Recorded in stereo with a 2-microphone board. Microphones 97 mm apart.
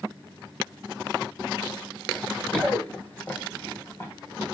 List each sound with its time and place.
2.1 s running footsteps: 15° left (ahead or behind), 2 m; by 4.5 s 30° left (ahead or behind), 3.5 m